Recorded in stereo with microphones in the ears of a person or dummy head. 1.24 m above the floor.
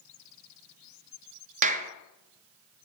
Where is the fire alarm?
I don't hear a fire alarm.